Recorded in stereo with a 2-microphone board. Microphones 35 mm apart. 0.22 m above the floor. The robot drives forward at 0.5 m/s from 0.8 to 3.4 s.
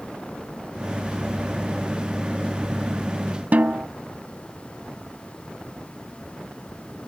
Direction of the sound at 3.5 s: 50° right (ahead or behind).